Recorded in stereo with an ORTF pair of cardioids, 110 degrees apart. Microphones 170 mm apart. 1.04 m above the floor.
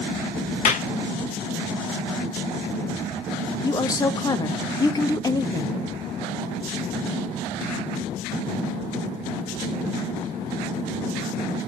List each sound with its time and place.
0.7 s a clap: 45° left, 1.7 m
3.6 s a woman speaking: 25° left, 1.3 m